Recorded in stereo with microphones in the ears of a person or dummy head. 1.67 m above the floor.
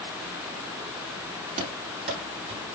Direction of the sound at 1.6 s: 40° right (ahead or behind).